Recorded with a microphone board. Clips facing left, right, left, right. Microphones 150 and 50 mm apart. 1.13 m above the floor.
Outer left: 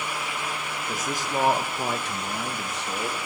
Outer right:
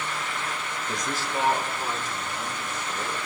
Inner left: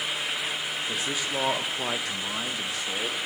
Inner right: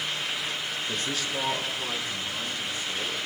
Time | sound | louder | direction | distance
0.9 | a man speaking | outer left 2 dB, inner left 1 dB | centre (ahead or behind) | 1.2 m